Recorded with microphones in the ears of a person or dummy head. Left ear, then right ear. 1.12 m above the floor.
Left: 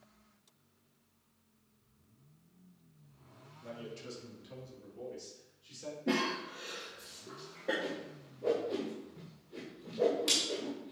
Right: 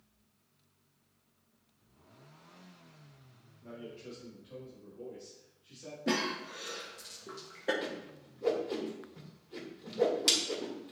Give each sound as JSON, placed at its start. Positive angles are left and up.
{"t": 3.6, "sound": "a man speaking", "side_deg": 80, "distance_m": 1.7}
{"t": 6.1, "sound": "a cough", "side_deg": -45, "distance_m": 0.9}
{"t": 7.8, "sound": "a whoosh", "side_deg": -30, "distance_m": 1.9}